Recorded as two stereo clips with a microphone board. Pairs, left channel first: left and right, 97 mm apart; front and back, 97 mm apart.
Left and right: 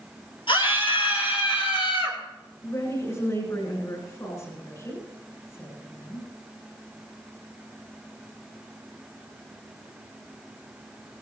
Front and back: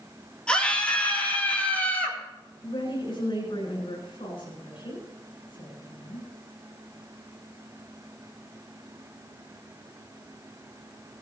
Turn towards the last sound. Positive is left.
turn(degrees=35)